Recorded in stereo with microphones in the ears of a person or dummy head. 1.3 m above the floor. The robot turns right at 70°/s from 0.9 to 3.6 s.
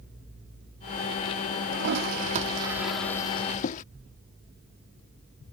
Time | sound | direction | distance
1.7 | a toilet flushing | 90° right | ?